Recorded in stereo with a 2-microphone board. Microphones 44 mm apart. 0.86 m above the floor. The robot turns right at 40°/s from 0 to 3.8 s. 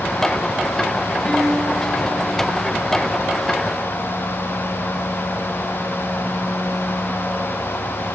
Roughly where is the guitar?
Behind left.